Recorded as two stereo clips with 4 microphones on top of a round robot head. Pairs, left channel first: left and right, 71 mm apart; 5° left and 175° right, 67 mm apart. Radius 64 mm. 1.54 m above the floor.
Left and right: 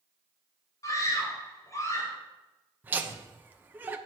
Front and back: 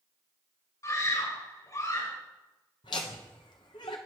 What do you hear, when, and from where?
0.8 s a scream: 50° left, 6 m; by 2.1 s 45° left, 6.5 m
2.8 s laughter: 25° right, 1.1 m